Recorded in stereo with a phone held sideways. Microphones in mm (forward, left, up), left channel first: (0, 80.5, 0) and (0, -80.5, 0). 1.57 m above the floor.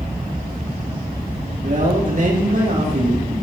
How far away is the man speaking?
About 3.5 m.